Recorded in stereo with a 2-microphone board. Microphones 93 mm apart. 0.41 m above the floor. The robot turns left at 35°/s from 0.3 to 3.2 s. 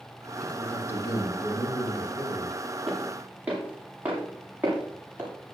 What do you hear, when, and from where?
0.4 s a man speaking: 170° left, 4 m; by 2.6 s 95° left, 4 m
2.9 s footsteps: centre (ahead or behind), 7 m; by 5.3 s 20° right (ahead or behind), 8 m